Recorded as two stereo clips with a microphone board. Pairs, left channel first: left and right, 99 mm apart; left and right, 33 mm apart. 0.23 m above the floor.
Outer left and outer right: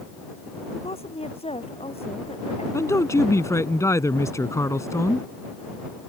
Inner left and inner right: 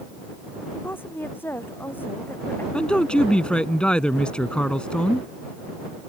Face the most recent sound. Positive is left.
turn(degrees=30)  # may be behind; listen again after turning